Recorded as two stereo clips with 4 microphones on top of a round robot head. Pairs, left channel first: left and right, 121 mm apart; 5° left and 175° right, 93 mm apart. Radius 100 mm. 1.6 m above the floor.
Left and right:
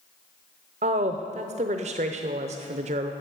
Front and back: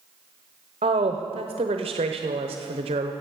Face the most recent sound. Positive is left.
turn(degrees=-135)